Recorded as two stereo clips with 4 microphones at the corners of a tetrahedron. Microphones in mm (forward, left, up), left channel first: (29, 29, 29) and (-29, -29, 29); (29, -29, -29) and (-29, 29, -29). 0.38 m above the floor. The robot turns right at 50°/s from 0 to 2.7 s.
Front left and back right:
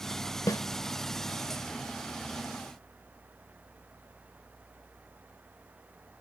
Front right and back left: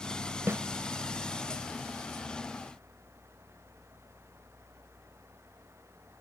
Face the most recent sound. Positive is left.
turn(degrees=-165)